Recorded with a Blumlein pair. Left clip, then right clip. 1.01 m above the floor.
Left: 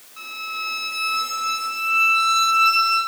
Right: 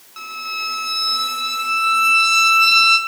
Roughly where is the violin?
Ahead right.